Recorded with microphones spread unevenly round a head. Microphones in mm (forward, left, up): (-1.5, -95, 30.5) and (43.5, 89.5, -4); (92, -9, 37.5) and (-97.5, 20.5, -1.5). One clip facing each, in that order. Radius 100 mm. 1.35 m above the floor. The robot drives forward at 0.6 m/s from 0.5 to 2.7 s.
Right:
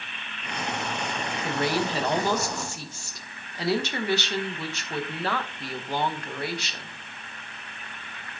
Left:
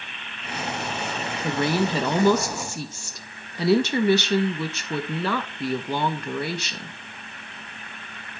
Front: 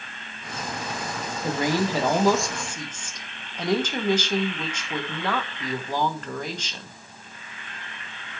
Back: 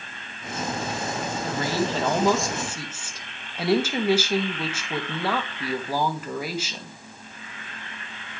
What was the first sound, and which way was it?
A woman speaking, 65° left.